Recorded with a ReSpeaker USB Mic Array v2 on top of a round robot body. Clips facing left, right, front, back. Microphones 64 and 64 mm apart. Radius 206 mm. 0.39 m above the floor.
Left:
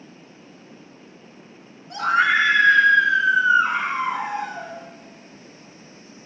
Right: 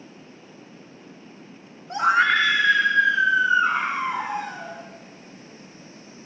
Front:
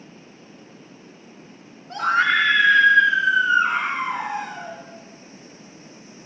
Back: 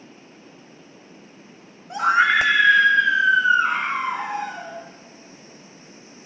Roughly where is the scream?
Right.